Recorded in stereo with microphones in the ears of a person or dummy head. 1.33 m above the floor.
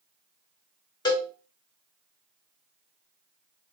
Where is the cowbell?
25° left (ahead or behind), 2 m.